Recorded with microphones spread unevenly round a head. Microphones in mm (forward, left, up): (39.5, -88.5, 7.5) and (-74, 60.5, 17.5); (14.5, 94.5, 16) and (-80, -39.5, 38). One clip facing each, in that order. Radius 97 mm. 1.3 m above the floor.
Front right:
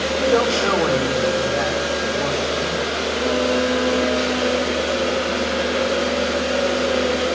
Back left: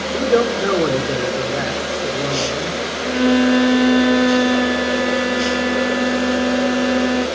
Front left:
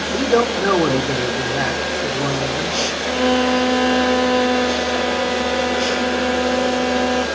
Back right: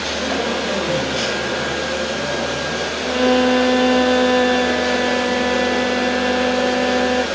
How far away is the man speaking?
About 3 m.